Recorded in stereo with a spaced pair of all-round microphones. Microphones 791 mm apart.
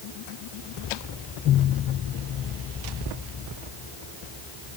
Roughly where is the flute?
I don't hear a flute.